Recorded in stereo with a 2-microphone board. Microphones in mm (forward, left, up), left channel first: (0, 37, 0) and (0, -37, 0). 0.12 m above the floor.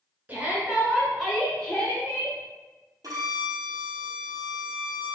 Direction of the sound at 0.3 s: 25° right (ahead or behind).